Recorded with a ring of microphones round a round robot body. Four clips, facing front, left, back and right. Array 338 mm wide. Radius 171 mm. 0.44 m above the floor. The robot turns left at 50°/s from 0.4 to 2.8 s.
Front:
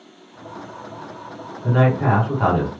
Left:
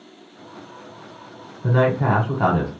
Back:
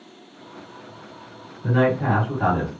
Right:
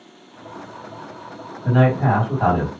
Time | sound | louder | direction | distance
1.6 | a man speaking | right 1 dB, front 2 dB | 100° left | 1.9 m